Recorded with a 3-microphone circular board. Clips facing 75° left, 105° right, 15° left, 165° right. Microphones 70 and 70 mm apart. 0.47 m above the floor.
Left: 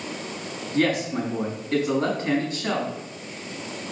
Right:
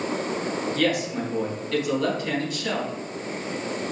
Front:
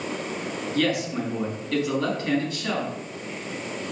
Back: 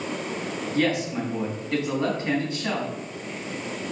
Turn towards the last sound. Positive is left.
turn(degrees=130)